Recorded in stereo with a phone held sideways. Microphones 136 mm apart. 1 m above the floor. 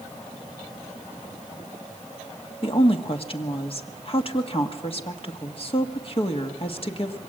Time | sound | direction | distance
2.6 | a woman speaking | 45° left (ahead or behind) | 1.6 m